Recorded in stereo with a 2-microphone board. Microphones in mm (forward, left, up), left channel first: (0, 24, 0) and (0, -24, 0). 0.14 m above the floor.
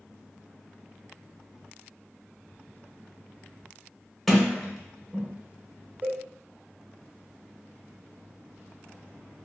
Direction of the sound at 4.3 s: 5° left (ahead or behind).